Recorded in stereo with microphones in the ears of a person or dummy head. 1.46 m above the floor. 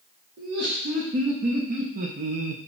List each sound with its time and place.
0.4 s laughter: 50° right (ahead or behind), 1.6 m; by 2.6 s 45° right (ahead or behind), 0.5 m